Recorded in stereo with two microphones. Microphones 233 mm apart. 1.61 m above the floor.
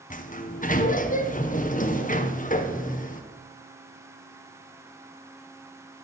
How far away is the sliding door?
About 1.0 m.